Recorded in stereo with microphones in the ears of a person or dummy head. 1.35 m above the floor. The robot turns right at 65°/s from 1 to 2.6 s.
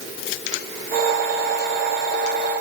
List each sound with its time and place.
Only background noise.